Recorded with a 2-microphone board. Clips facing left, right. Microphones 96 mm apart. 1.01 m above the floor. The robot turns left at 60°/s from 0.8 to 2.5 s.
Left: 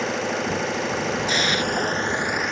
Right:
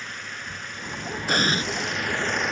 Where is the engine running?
100° left; by 2.5 s straight ahead.